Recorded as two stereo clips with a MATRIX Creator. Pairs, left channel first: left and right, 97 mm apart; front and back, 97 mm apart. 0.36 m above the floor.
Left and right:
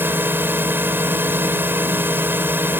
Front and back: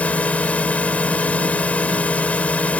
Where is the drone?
55° right.